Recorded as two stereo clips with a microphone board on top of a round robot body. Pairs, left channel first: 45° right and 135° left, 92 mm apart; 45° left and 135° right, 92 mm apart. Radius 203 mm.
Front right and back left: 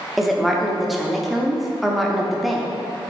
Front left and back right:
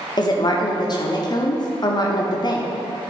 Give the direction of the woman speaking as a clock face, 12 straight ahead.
10 o'clock.